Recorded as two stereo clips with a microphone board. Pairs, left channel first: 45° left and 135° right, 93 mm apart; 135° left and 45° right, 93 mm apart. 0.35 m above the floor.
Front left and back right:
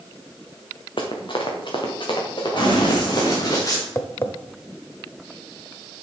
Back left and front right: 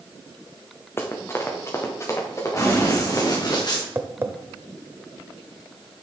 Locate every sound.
1.0 s running footsteps: 70° left, 1.9 m; by 3.6 s 80° left, 5 m
2.6 s running footsteps: 80° left, 4 m; by 3.9 s 100° left, 3.5 m
4.0 s tapping: 5° left, 0.8 m